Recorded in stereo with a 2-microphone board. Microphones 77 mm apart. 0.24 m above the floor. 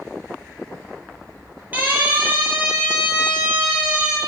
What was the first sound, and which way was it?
A siren, 25° right (ahead or behind).